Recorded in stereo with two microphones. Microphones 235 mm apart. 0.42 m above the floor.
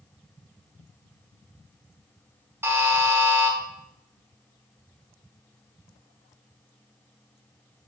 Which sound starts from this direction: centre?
A buzzer, at 2.6 s.